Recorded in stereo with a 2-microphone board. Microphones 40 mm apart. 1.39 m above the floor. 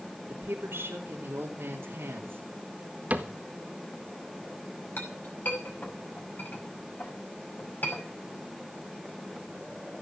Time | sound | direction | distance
0.3 | a woman speaking | 80° right | 3.5 m
3.1 | a cupboard door | 40° right (ahead or behind) | 1.6 m
5.0 | a clink | 45° left (ahead or behind) | 5.5 m